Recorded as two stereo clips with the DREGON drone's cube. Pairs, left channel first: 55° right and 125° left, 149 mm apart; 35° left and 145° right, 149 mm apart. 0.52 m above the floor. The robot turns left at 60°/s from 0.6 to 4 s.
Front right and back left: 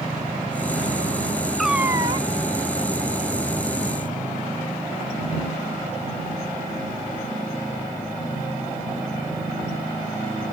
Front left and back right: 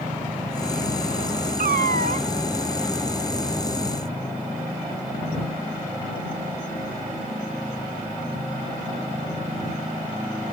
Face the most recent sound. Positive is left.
turn(degrees=70)